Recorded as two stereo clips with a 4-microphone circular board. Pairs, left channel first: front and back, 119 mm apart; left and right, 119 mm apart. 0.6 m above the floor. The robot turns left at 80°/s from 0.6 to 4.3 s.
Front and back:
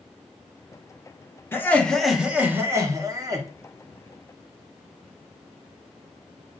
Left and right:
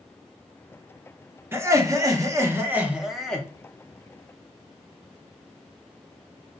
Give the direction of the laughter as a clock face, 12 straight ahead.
2 o'clock.